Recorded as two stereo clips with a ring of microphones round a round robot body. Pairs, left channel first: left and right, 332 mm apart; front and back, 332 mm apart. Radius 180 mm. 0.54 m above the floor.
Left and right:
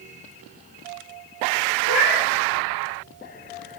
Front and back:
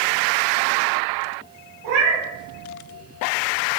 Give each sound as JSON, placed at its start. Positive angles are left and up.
{"t": 1.8, "sound": "a cat meowing", "azimuth_deg": -170, "distance_m": 2.0}